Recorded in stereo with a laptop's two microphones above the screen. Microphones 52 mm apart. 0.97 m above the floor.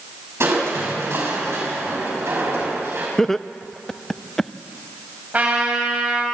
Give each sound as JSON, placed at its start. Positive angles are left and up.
{"t": 0.4, "sound": "crushing", "side_deg": -55, "distance_m": 6.0}
{"t": 3.2, "sound": "laughter", "side_deg": 10, "distance_m": 0.7}
{"t": 5.3, "sound": "a trumpet", "side_deg": -30, "distance_m": 4.5}